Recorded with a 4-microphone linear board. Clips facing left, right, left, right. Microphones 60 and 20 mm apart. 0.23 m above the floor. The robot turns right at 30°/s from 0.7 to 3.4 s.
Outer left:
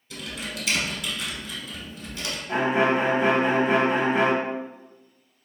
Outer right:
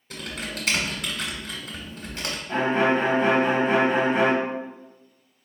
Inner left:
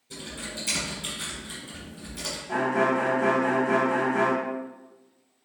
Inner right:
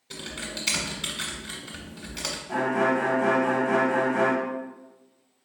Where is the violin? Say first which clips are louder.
Even, even; 10° left (ahead or behind), 0.8 m; by 4.4 s centre (ahead or behind), 0.8 m.